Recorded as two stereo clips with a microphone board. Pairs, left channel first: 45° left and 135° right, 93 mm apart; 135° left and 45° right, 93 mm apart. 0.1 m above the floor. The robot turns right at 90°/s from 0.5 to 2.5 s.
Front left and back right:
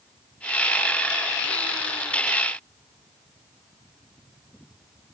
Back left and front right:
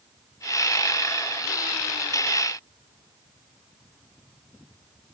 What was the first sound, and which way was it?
Only background noise.